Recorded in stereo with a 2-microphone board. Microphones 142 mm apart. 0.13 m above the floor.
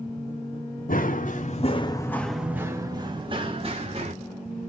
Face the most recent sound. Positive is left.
turn(degrees=-45)  # may be behind; listen again after turning